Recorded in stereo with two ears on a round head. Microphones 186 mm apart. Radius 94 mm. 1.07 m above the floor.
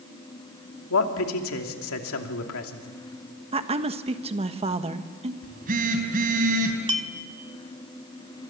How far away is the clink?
About 1.4 m.